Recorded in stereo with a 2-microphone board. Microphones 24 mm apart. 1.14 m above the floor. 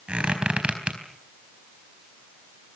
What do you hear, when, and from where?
0.1 s a squeak: 50° right (ahead or behind), 4 m